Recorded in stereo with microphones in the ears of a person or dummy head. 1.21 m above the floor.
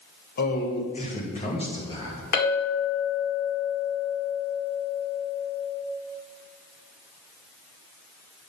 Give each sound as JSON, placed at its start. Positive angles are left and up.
{"t": 0.4, "sound": "a man speaking", "side_deg": 50, "distance_m": 1.2}
{"t": 2.3, "sound": "a clink", "side_deg": 50, "distance_m": 2.0}